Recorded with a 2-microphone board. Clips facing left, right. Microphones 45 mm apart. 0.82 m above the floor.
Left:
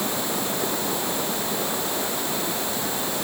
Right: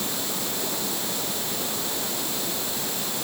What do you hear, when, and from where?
0.0 s running water: 30° left (ahead or behind)